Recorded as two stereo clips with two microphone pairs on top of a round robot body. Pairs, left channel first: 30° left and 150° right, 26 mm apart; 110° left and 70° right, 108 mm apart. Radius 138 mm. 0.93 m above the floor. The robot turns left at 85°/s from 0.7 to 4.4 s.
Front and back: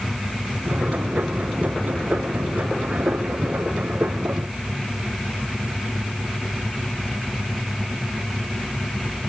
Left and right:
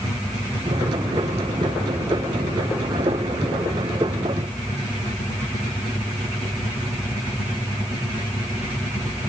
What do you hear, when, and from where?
Only background noise.